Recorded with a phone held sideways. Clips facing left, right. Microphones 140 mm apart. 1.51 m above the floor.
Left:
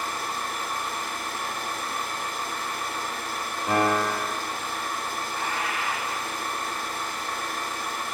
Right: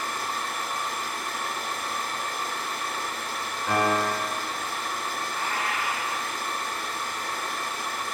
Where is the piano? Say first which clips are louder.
Left 1 dB; 20° left (ahead or behind), 0.6 m.